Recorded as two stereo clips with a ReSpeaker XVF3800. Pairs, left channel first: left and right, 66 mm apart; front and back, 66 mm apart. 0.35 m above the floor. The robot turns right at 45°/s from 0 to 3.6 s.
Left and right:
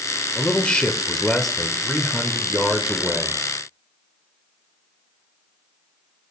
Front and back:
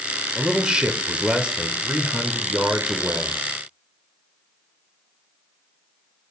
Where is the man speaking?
120° left, 0.8 m; by 3.4 s 100° right, 0.8 m.